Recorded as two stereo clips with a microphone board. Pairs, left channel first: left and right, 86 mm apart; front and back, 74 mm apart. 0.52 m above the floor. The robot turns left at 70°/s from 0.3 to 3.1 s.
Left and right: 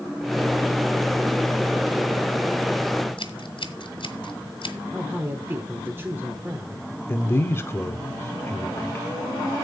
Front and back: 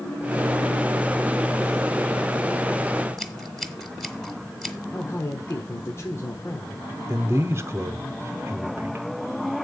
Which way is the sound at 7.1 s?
140° left.